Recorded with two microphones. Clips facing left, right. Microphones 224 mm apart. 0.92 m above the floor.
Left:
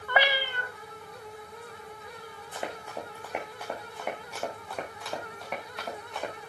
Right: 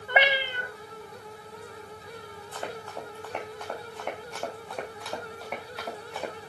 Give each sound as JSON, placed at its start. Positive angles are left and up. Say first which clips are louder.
{"t": 0.1, "sound": "a cat meowing", "louder": "right 2 dB", "side_deg": -20, "distance_m": 1.0}
{"t": 2.5, "sound": "running footsteps", "louder": "even", "side_deg": 15, "distance_m": 3.5}